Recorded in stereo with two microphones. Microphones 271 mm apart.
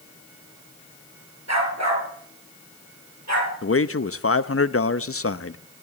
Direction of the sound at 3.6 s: 55° left (ahead or behind).